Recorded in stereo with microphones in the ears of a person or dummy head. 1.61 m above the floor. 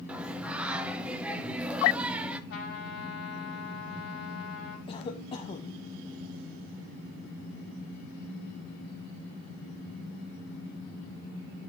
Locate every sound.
0.1 s singing: 5° right (ahead or behind), 0.6 m
2.5 s a trumpet: 70° left (ahead or behind), 4 m
4.9 s a cough: 30° left (ahead or behind), 0.8 m